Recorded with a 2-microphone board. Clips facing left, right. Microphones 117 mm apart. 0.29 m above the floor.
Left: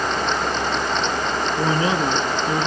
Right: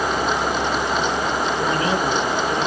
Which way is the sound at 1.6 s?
35° left (ahead or behind).